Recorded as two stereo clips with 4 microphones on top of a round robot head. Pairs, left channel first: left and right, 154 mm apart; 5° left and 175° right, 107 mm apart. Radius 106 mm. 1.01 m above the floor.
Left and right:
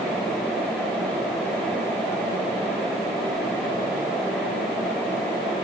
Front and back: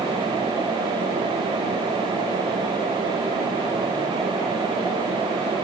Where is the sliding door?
I don't hear a sliding door.